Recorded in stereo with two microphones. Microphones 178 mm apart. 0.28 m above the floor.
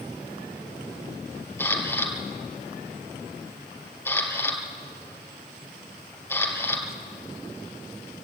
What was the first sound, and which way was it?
A camera shutter, 15° left (ahead or behind).